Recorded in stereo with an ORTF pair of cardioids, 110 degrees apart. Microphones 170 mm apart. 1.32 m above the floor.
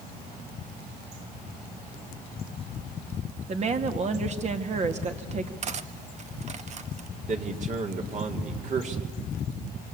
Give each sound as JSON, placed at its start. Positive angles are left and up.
{"t": 3.5, "sound": "a woman speaking", "azimuth_deg": -40, "distance_m": 2.5}
{"t": 5.6, "sound": "cutlery clinking", "azimuth_deg": -45, "distance_m": 1.2}
{"t": 7.3, "sound": "a man speaking", "azimuth_deg": -45, "distance_m": 3.5}